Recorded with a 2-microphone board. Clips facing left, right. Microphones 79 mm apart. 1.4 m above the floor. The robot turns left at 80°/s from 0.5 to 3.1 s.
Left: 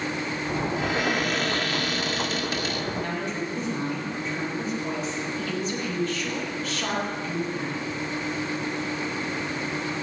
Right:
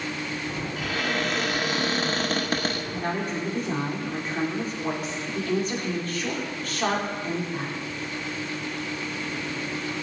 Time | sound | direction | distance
0.8 | a cupboard door | 45° left | 1.2 m
2.9 | a woman speaking | 35° right (ahead or behind) | 4.5 m